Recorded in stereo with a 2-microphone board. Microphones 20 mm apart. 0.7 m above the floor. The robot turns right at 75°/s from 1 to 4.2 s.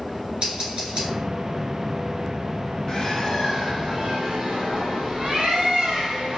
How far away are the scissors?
About 1.5 m.